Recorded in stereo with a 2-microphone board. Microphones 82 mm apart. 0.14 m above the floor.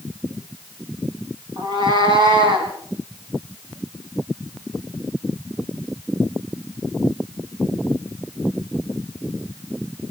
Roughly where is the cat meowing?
Right.